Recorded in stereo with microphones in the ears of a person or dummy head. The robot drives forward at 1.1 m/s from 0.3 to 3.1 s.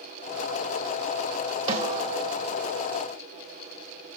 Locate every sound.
1.7 s a snare drum: 35° right (ahead or behind), 3.5 m; by 2.3 s 45° right (ahead or behind), 3 m